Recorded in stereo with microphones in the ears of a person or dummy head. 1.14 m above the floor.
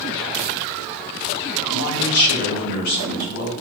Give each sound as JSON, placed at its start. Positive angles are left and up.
{"t": 1.7, "sound": "a man speaking", "side_deg": 50, "distance_m": 2.0}